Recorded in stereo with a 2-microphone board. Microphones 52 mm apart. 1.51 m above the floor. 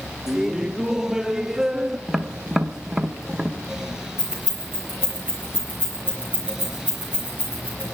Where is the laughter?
10° right (ahead or behind), 0.7 m.